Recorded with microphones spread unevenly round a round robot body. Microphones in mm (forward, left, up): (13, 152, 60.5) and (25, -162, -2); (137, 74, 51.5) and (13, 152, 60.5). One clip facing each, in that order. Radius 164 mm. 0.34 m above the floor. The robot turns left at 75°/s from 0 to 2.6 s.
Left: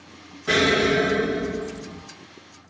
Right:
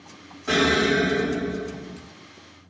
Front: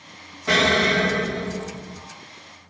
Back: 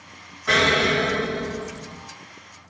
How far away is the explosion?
About 1.8 m.